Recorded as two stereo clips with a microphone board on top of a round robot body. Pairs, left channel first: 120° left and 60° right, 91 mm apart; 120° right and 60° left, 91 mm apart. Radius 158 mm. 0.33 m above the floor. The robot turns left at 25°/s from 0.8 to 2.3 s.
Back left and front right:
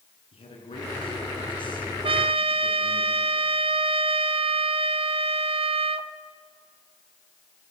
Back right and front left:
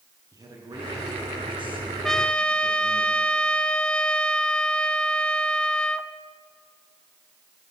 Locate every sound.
0.3 s a man speaking: 110° left, 7.5 m; by 3.0 s 70° left, 7.5 m
2.0 s a trumpet: 35° right, 0.6 m; by 6.1 s 40° right, 0.6 m